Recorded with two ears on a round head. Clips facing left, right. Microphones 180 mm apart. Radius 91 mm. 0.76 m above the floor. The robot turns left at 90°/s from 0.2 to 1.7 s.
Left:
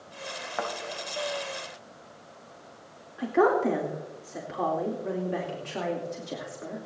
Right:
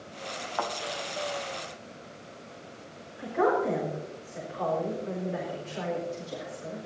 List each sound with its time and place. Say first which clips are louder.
0.6 s a thud: even; 30° left (ahead or behind), 2 m; by 0.7 s 40° left (ahead or behind), 2 m
3.2 s a woman speaking: left 3 dB; 70° left (ahead or behind), 2.5 m